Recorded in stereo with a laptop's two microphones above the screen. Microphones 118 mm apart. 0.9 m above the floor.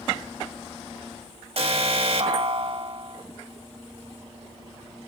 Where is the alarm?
55° right (ahead or behind), 2.5 m.